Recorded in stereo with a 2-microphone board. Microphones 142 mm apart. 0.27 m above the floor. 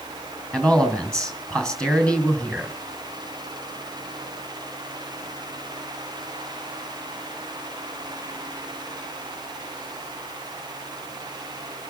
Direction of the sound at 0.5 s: 5° left (ahead or behind).